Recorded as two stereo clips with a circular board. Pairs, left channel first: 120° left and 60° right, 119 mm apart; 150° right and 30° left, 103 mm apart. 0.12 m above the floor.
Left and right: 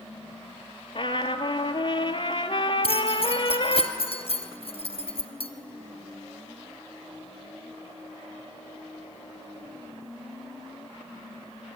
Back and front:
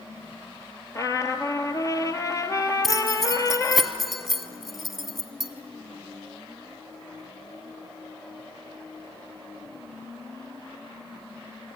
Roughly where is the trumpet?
Behind.